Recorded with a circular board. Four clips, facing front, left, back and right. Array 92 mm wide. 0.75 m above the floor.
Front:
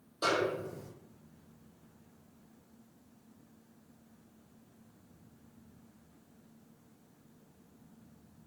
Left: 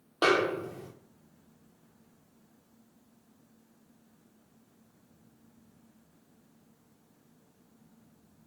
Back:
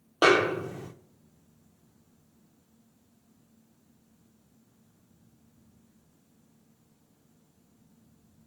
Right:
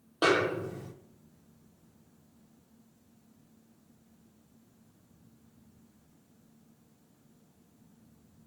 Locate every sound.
0.2 s a snare drum: 175° left, 0.8 m